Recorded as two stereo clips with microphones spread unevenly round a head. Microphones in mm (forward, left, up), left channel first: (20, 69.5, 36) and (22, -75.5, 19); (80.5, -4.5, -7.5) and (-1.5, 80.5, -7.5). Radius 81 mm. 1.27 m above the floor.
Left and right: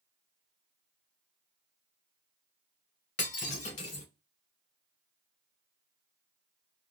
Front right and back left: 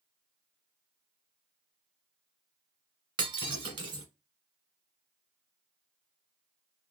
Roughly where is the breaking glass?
Left.